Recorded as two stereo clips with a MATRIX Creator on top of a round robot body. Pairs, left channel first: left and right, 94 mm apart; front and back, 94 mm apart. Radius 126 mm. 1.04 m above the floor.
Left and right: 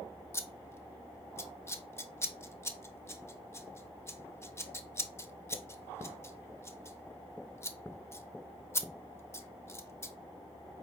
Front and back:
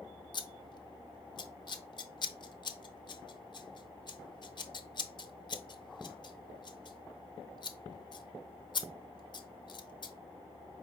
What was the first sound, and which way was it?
Scissors, 30° left.